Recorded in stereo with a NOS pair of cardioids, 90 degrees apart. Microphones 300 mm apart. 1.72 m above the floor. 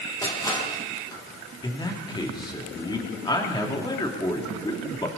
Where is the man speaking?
15° left, 3 m.